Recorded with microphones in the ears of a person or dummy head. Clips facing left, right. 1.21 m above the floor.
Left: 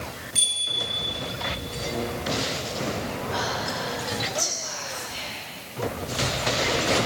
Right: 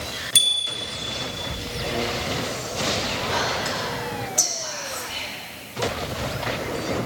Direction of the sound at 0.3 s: 70° right (ahead or behind).